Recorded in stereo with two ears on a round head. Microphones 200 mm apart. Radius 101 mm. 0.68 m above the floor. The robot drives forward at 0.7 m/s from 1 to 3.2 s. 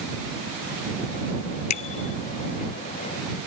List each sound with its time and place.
1.7 s a bicycle bell: 85° left